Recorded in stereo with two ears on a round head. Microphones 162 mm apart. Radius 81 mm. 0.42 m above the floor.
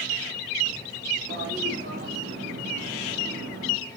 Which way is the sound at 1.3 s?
65° right (ahead or behind).